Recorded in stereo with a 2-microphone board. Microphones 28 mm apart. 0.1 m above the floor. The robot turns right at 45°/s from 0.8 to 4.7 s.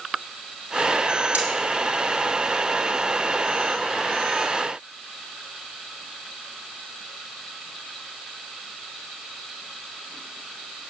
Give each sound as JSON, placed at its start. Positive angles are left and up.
{"t": 1.3, "sound": "cutlery clinking", "side_deg": -60, "distance_m": 2.0}